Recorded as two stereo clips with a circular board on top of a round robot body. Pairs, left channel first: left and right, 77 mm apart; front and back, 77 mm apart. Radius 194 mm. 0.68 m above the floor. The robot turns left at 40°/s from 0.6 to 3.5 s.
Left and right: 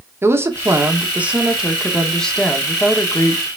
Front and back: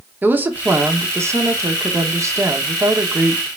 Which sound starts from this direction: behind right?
A woman speaking, at 0.2 s.